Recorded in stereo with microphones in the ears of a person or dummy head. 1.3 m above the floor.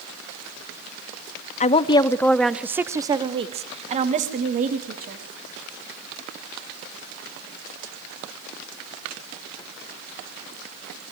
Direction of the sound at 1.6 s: 35° left (ahead or behind).